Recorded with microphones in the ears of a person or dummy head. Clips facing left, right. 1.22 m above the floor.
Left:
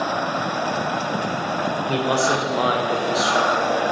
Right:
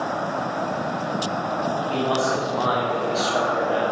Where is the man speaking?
65° left (ahead or behind), 1.1 m; by 3.8 s 10° right (ahead or behind), 0.9 m.